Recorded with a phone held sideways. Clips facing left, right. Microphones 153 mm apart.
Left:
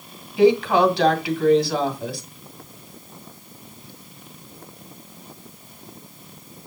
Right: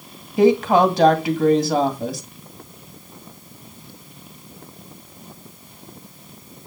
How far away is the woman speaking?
About 1.9 m.